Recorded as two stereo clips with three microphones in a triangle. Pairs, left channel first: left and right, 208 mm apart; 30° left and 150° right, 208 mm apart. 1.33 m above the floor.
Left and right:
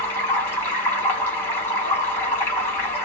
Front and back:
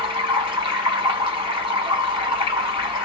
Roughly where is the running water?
Behind.